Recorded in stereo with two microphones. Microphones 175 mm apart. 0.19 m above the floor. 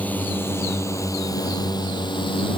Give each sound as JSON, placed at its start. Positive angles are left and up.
{"t": 0.0, "sound": "a drone", "side_deg": 10}